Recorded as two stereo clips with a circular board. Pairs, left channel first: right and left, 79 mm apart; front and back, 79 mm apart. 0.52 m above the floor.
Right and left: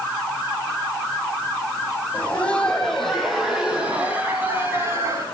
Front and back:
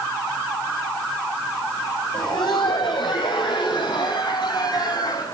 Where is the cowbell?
No cowbell in this recording.